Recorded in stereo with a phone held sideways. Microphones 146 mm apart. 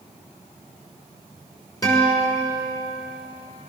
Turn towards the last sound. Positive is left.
turn(degrees=25)  # may be behind; listen again after turning